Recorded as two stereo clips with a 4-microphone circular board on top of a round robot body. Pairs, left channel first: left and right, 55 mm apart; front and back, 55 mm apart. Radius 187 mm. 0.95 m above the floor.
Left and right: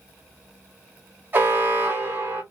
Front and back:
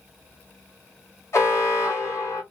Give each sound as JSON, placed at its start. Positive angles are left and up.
{"t": 1.3, "sound": "an alarm", "azimuth_deg": -30, "distance_m": 3.0}